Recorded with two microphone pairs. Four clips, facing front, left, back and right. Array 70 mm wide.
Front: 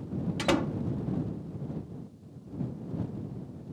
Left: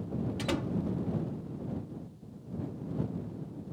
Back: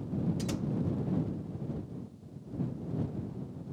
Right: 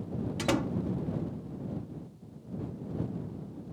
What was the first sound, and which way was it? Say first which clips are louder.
A door slam: right 6 dB, front 7 dB; 15° right.